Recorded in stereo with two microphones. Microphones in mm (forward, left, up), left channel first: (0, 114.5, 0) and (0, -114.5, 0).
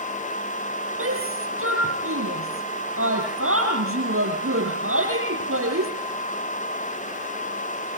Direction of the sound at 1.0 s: 70° right (ahead or behind).